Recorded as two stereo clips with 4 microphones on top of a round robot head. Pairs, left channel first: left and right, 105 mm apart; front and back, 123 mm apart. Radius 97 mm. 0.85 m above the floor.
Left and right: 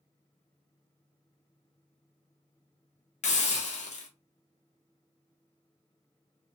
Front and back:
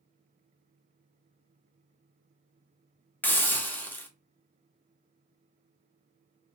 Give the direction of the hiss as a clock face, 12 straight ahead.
9 o'clock.